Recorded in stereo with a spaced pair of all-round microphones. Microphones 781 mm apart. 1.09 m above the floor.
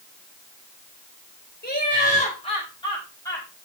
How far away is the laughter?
About 4.5 m.